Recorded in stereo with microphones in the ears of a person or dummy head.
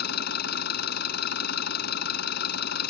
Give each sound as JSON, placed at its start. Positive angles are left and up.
{"t": 0.0, "sound": "an engine running", "side_deg": 60}